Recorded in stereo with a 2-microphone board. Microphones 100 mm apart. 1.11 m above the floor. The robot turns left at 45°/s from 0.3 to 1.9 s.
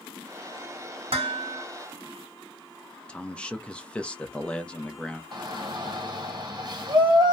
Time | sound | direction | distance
1.1 | dishes clattering | 75° right (ahead or behind) | 1.1 m
3.1 | a man speaking | 10° left (ahead or behind) | 0.6 m
5.3 | a shout | 45° right (ahead or behind) | 1.3 m